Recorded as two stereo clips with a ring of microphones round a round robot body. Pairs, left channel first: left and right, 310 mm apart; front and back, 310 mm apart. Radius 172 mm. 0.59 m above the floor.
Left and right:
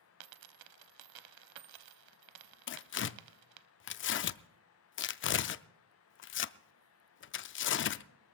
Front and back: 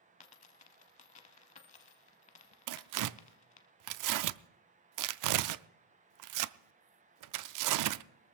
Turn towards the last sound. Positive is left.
turn(degrees=145)